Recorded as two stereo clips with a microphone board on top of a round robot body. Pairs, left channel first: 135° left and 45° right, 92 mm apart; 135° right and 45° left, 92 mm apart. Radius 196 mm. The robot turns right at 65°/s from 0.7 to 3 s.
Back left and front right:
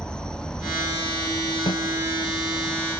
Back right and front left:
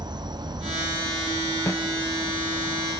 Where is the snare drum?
165° left, 3 m; by 1.8 s 175° left, 3 m.